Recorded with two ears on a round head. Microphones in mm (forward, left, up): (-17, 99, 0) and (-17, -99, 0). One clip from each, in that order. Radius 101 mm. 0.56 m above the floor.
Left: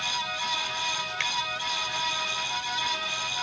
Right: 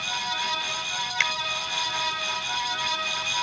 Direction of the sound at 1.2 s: 30° right (ahead or behind).